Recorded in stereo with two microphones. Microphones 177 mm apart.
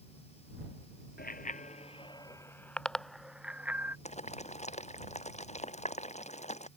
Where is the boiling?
40° left (ahead or behind).